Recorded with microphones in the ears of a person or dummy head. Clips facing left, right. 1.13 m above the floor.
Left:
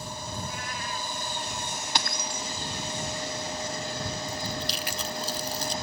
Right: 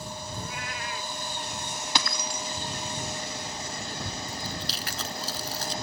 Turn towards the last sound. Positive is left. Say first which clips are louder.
# left 3 dB
turn(degrees=15)  # may be behind; listen again after turning